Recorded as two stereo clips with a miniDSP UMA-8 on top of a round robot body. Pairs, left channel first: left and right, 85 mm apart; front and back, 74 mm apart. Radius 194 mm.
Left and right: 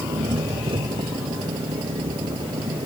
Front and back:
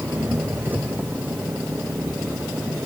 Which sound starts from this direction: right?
An engine running, at 0.0 s.